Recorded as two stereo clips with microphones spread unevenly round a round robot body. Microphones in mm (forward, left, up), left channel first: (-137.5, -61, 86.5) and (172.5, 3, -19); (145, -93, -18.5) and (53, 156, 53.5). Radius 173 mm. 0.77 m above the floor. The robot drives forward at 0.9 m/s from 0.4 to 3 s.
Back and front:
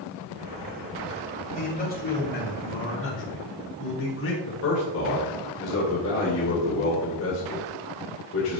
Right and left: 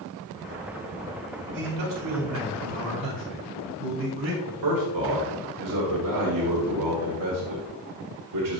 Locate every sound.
1.5 s a man speaking: 115° left, 3 m; by 4.4 s 135° left, 4 m
4.5 s a man speaking: 140° left, 3 m